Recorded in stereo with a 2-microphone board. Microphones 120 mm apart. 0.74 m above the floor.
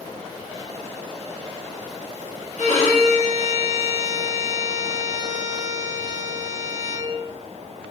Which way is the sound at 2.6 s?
70° left (ahead or behind).